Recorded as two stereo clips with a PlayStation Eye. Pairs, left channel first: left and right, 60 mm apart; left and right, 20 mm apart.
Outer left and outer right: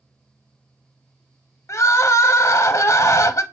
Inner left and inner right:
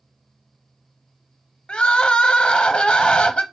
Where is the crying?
55° left (ahead or behind), 0.6 m.